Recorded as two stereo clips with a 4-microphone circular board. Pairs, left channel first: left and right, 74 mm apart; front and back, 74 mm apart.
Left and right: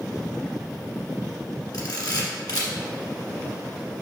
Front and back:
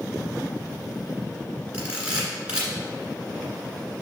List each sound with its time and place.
1.7 s a camera shutter: 105° left, 1.7 m